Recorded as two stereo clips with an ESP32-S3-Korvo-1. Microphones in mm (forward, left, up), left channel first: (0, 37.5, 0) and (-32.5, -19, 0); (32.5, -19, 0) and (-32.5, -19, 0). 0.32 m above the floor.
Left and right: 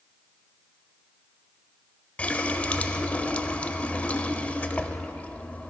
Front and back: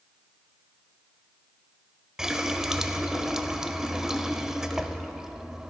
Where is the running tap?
105° left, 0.6 m.